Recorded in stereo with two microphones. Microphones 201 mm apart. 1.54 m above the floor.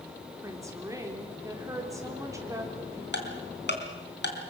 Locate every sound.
0.4 s a woman speaking: 15° right (ahead or behind), 4 m
3.1 s ticking: 60° left (ahead or behind), 3.5 m